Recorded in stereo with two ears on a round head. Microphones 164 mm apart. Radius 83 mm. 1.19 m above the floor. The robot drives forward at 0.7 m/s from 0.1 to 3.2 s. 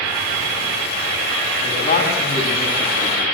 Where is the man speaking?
40° left (ahead or behind), 9 m; by 3.2 s 35° left (ahead or behind), 10 m.